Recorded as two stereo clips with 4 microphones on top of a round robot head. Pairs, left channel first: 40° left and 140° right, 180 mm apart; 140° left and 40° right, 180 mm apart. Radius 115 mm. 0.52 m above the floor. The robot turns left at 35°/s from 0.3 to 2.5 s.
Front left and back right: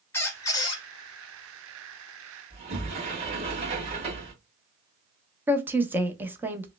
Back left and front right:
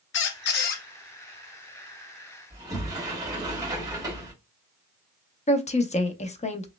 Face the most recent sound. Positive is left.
turn(degrees=150)